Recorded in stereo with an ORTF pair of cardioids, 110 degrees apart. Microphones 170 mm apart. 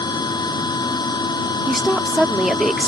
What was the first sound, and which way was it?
A machine running, 25° left.